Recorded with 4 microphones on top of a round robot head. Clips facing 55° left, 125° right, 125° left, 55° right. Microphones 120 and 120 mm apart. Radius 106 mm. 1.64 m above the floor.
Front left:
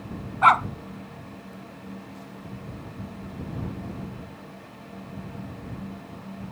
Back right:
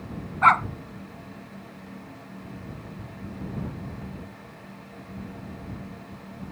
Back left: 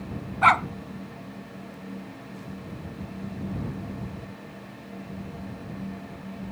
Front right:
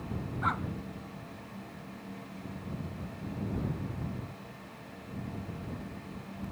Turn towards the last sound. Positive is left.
turn(degrees=130)